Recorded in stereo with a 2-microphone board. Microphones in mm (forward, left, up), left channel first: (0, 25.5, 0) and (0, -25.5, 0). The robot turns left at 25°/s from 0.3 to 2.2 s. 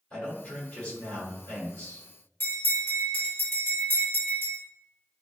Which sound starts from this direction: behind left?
A man speaking, at 0.1 s.